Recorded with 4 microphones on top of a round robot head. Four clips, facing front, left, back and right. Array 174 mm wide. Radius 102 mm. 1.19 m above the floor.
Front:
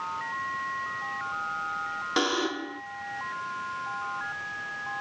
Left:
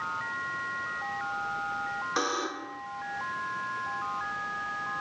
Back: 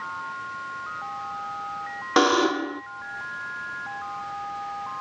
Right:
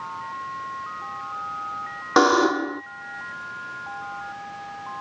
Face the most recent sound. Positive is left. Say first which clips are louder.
# right 17 dB, back 9 dB
turn(degrees=-115)